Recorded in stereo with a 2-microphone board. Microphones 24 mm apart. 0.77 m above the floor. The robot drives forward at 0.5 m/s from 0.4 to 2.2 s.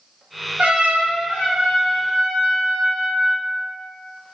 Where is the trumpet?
65° right (ahead or behind), 1.0 m.